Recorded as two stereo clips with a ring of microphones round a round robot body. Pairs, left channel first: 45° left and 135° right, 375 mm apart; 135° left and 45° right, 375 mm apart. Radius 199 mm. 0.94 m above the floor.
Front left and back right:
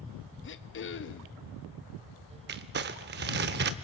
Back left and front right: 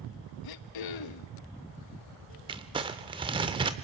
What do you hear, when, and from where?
0.4 s throat clearing: 105° left, 1.1 m
2.5 s crumpling: 110° right, 0.6 m